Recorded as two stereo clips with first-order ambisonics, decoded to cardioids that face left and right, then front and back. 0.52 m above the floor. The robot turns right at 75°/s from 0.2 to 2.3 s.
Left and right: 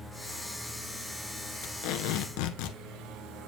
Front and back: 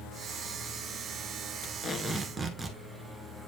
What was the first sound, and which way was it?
Tape being pulled, 50° left.